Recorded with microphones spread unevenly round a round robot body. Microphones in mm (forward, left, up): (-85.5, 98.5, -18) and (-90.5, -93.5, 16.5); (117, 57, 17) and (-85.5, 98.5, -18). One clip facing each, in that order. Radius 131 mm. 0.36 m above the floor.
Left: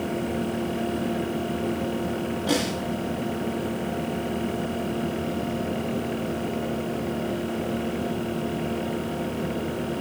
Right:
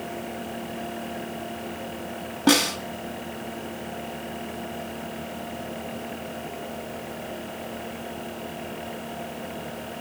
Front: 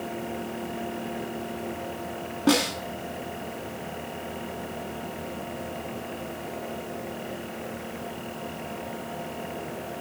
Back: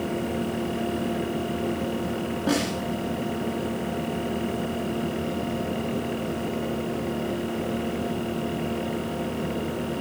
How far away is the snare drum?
About 2.5 m.